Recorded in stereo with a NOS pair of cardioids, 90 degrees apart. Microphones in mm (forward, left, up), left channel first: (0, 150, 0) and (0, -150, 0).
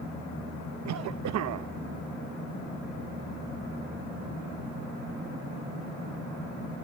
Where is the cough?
65° right, 1.0 m.